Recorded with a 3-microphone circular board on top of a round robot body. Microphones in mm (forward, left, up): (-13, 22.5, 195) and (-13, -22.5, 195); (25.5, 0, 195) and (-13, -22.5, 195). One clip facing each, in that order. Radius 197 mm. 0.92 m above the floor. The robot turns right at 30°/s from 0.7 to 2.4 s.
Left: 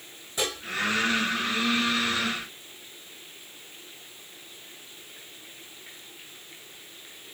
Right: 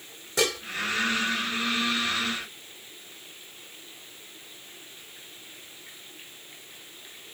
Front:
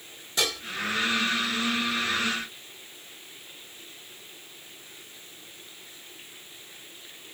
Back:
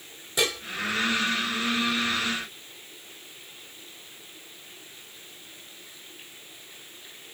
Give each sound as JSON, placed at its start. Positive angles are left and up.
{"t": 0.4, "sound": "dishes clattering", "azimuth_deg": -70, "distance_m": 3.0}